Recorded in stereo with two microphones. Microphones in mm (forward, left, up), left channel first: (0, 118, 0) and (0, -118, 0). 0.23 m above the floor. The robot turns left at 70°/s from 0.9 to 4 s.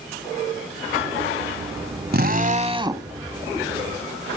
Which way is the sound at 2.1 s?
100° right.